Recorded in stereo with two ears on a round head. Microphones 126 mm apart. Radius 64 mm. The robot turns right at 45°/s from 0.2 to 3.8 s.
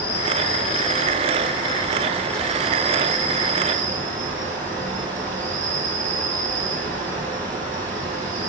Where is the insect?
80° left, 2.5 m; by 8.5 s 120° right, 2.5 m.